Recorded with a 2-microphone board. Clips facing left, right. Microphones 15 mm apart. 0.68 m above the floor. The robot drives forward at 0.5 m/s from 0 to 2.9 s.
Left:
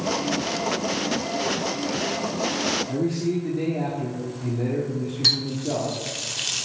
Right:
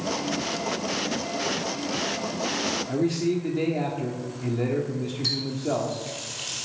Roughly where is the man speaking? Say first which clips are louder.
Even; right.